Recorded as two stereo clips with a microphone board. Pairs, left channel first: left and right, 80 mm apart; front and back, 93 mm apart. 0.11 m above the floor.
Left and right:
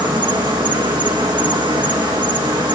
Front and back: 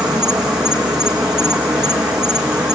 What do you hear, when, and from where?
0.0 s an insect: 95° right, 5 m